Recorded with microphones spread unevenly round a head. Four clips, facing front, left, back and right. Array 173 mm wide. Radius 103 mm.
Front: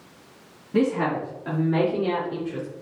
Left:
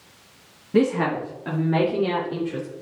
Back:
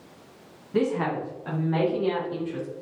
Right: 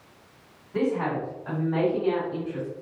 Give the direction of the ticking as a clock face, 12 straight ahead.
No ticking in this recording.